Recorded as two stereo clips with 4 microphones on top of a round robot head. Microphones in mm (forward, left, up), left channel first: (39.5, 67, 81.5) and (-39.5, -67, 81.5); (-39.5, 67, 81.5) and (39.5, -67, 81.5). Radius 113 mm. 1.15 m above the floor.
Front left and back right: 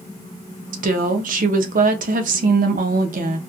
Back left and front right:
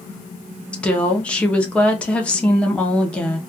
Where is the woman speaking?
155° right, 0.6 m.